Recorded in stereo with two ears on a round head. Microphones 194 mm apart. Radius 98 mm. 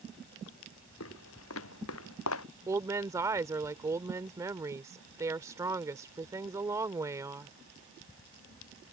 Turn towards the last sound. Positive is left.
turn(degrees=-15)  # may be behind; listen again after turning